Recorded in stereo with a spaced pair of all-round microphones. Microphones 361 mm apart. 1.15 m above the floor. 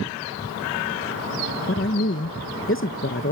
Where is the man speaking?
35° left (ahead or behind), 0.8 m.